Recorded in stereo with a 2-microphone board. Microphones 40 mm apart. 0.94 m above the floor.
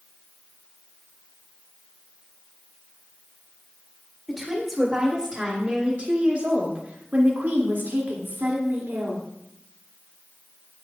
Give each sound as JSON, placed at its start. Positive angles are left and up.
{"t": 4.3, "sound": "a woman speaking", "side_deg": -10, "distance_m": 2.5}